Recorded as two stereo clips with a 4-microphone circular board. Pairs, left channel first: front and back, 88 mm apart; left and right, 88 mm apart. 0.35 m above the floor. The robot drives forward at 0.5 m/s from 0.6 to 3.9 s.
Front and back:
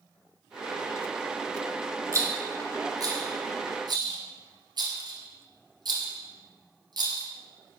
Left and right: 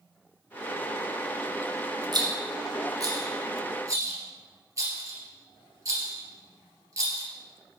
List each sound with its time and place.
2.1 s a rattle: 125° right, 1.8 m; by 7.3 s 145° right, 2.5 m